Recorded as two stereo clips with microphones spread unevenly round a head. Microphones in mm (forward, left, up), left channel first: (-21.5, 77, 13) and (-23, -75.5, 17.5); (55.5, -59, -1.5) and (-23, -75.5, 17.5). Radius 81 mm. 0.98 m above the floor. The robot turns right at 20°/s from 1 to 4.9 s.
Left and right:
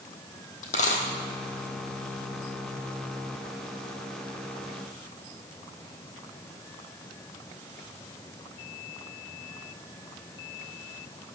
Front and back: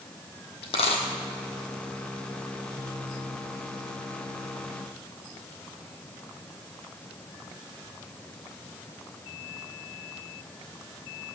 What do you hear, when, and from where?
0.6 s a dropped coin: 40° left, 2 m; by 1.0 s 45° left, 2 m